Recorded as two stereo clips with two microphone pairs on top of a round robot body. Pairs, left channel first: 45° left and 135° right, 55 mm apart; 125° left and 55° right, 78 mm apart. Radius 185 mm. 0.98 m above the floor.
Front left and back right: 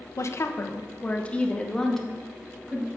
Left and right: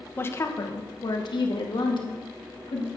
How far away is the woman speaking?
About 0.8 m.